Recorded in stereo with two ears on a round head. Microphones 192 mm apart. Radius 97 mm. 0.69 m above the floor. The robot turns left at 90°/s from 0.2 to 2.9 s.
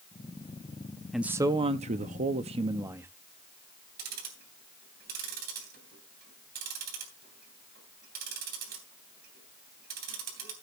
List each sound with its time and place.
1.1 s a man speaking: straight ahead, 0.6 m; by 3.1 s 160° right, 0.6 m
4.0 s ticking: 50° right (ahead or behind), 3 m